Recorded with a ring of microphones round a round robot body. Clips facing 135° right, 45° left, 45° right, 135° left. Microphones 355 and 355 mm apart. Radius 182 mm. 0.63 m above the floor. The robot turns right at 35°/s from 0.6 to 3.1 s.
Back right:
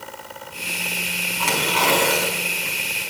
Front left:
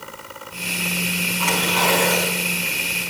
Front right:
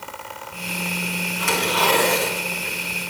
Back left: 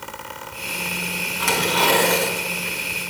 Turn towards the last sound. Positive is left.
turn(degrees=-120)